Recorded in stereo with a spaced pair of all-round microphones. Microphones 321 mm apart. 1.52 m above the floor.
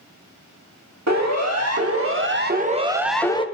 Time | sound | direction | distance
1.1 | a siren | 60° right (ahead or behind) | 3 m